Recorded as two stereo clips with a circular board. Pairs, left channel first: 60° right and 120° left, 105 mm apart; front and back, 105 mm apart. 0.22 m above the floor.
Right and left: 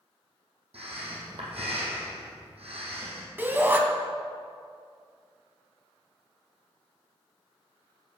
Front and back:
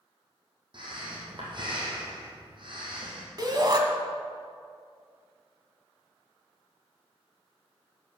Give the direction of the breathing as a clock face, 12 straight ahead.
7 o'clock.